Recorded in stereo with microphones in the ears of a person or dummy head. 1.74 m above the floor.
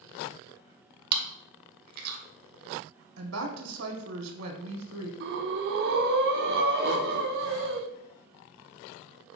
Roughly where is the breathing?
Right.